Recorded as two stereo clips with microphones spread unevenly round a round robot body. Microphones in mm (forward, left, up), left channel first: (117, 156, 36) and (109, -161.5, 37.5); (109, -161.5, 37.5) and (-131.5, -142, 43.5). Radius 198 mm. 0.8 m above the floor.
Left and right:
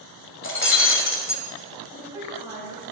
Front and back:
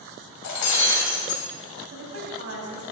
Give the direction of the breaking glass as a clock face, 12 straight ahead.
11 o'clock.